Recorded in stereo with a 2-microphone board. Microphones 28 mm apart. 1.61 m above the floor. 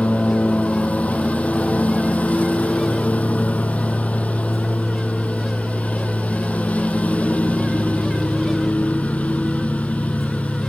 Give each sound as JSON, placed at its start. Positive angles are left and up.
{"t": 0.0, "sound": "a lawn mower", "side_deg": 75}